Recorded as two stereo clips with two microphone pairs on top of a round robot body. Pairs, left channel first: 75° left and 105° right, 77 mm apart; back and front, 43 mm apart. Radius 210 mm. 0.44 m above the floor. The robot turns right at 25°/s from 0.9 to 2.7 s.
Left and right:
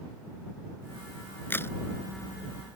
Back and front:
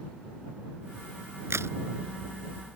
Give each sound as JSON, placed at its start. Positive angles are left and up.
{"t": 1.5, "sound": "a crack", "azimuth_deg": 10}